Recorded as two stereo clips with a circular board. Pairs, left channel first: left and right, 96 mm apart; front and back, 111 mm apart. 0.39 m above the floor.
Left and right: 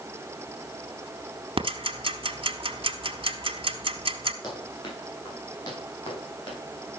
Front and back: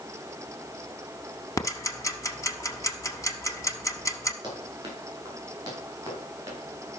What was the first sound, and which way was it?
Ticking, 60° right.